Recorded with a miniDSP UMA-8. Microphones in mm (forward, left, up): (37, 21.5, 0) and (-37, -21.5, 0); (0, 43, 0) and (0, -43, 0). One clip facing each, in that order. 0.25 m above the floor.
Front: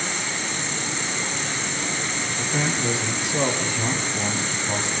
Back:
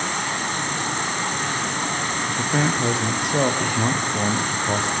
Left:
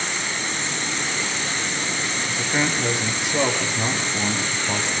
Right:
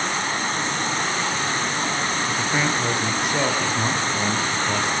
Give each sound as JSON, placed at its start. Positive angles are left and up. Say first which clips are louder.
{"t": 0.0, "sound": "an insect", "louder": "back 4 dB, right 4 dB", "azimuth_deg": -125, "distance_m": 3.0}
{"t": 2.3, "sound": "a man speaking", "louder": "back 4 dB, left 1 dB", "azimuth_deg": 175, "distance_m": 5.5}